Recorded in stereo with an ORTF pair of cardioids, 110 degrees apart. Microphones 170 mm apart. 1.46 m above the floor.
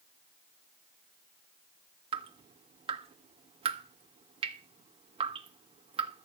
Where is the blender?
No blender in this recording.